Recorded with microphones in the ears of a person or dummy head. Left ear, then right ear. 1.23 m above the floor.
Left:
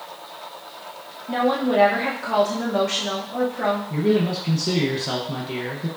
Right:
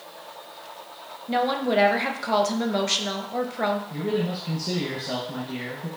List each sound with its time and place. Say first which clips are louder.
1.3 s a woman speaking: left 2 dB; 35° right (ahead or behind), 0.7 m
3.9 s a man speaking: left 6 dB; 65° left (ahead or behind), 0.8 m